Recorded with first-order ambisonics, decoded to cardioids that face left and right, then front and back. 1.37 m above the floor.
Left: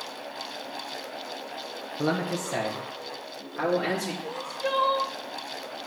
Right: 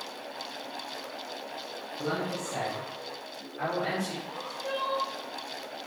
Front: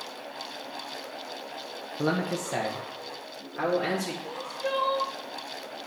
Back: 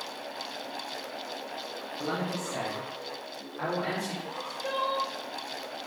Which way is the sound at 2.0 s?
35° left.